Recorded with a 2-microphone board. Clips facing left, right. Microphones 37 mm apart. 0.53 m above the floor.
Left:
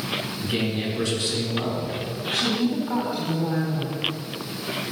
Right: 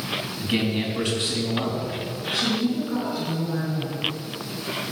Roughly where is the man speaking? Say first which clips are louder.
Right 3 dB; right.